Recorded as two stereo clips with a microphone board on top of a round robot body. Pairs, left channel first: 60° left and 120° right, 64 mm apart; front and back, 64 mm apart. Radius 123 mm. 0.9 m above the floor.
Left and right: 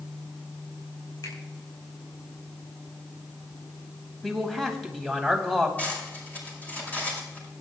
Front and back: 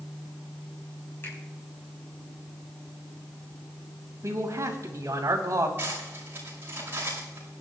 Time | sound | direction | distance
1.2 | a finger snap | 55° left | 5 m
4.2 | a man speaking | 145° left | 3 m
5.8 | cutlery clinking | 125° left | 5 m